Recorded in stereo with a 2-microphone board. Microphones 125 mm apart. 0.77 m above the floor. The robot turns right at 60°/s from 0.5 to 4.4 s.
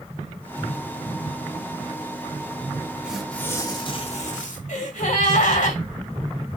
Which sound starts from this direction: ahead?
Tearing paper, at 3.0 s.